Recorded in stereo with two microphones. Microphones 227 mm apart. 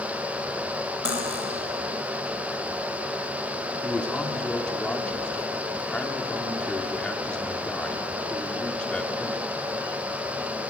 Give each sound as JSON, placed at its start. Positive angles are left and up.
{"t": 1.1, "sound": "cutlery clinking", "side_deg": 80, "distance_m": 3.5}
{"t": 3.8, "sound": "a man speaking", "side_deg": 5, "distance_m": 2.5}